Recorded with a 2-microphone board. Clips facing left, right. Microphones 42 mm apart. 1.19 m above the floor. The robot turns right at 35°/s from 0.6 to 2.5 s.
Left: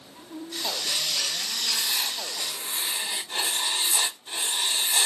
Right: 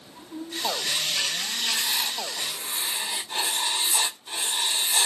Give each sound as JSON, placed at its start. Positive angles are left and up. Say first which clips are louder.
{"t": 1.7, "sound": "writing", "louder": "right 1 dB", "side_deg": -10, "distance_m": 3.5}